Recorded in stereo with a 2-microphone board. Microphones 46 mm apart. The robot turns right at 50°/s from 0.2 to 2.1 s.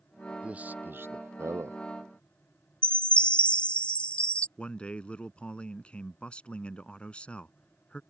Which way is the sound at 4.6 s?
25° left (ahead or behind).